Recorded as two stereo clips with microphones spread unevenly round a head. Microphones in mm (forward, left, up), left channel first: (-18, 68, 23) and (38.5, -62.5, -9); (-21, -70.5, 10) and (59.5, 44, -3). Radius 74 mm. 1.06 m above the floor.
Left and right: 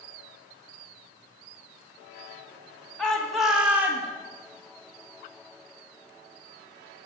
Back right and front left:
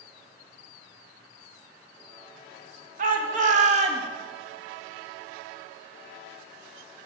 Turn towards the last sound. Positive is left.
turn(degrees=10)